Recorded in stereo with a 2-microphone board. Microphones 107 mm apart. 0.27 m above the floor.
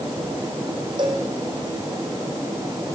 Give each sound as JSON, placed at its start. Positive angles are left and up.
{"t": 1.0, "sound": "a cowbell", "side_deg": -45, "distance_m": 4.5}